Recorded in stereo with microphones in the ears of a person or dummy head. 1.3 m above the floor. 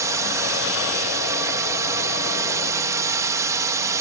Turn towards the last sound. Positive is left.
turn(degrees=-15)  # may be behind; listen again after turning